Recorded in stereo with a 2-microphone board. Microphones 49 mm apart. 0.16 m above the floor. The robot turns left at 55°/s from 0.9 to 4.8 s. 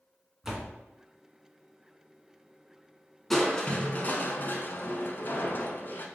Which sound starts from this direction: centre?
A door slam, at 0.4 s.